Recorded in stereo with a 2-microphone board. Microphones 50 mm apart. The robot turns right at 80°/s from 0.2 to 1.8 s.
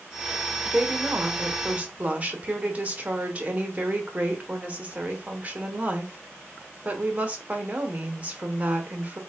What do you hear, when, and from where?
0.7 s a woman speaking: 145° right, 0.8 m; by 9.2 s 50° right, 0.8 m